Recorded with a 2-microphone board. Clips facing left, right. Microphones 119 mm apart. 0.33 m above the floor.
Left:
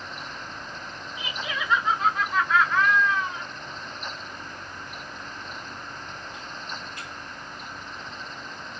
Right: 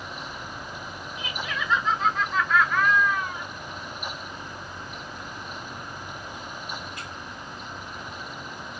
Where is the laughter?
10° left (ahead or behind), 1.8 m.